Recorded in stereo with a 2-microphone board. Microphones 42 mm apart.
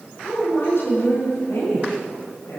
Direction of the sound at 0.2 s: 85° left.